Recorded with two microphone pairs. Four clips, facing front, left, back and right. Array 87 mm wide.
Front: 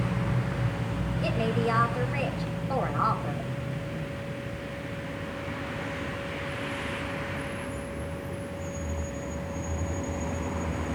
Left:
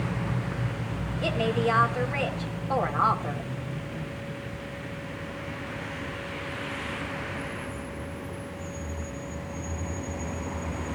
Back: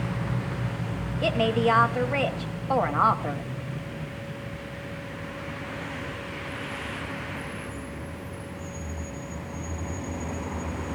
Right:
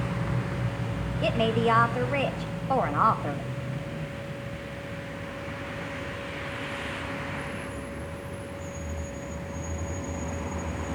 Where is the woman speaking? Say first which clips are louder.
Right 2 dB, back 5 dB; 150° right, 1.5 m.